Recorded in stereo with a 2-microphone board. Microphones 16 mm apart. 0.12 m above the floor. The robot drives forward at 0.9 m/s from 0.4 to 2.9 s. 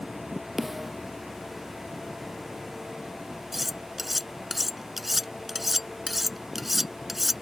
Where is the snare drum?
25° right (ahead or behind).